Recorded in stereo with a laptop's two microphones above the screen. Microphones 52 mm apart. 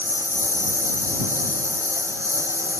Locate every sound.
0.0 s a lawn mower: 70° right (ahead or behind)